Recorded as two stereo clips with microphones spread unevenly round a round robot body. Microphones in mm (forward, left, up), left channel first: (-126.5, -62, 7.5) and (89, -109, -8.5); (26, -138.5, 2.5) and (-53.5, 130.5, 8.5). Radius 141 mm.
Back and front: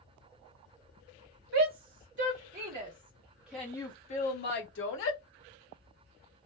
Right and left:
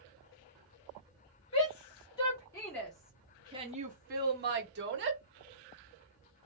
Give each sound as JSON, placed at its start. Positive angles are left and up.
{"t": 1.5, "sound": "a shout", "azimuth_deg": -5, "distance_m": 1.8}